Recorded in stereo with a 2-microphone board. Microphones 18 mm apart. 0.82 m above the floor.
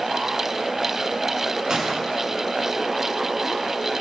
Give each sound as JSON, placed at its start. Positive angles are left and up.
{"t": 1.7, "sound": "a gunshot", "side_deg": -35, "distance_m": 7.0}